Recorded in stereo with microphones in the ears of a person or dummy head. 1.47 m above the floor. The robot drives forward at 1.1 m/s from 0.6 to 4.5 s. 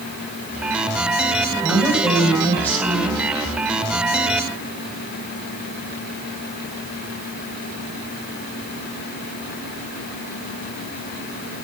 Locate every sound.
1.6 s a woman speaking: 10° left (ahead or behind), 7 m